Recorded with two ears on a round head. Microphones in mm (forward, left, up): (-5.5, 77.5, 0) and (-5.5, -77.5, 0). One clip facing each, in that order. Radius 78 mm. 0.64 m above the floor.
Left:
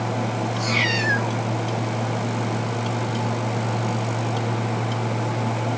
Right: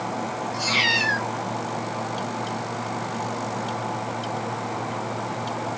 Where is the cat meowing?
70° right (ahead or behind), 3 m.